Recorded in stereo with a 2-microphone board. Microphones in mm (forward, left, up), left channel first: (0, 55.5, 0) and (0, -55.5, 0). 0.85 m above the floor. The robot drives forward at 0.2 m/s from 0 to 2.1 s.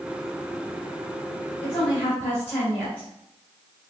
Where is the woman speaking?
15° left (ahead or behind), 2.5 m.